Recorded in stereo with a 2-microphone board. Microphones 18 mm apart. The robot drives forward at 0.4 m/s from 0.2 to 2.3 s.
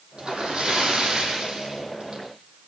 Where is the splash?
75° right (ahead or behind), 7.5 m; by 2.2 s 70° right (ahead or behind), 8 m.